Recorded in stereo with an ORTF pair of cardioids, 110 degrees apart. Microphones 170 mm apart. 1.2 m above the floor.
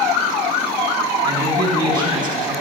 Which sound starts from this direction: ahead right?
A man speaking, at 1.2 s.